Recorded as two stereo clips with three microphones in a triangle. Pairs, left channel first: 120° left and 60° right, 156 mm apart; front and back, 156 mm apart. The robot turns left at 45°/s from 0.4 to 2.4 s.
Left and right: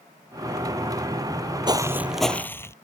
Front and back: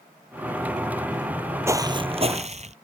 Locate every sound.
1.7 s footsteps: 115° right; by 2.7 s 175° right